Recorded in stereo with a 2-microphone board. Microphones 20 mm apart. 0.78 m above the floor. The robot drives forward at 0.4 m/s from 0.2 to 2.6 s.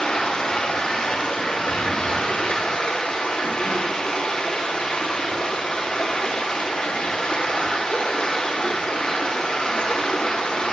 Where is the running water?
80° left, 6 m; by 10.7 s 85° left, 6 m.